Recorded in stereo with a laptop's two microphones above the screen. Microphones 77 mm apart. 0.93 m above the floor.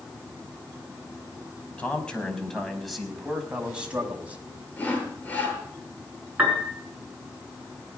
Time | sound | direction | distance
1.8 | a man speaking | 20° left (ahead or behind) | 5.5 m
4.8 | sawing | 25° left (ahead or behind) | 9 m
6.4 | a piano | 15° right (ahead or behind) | 5.5 m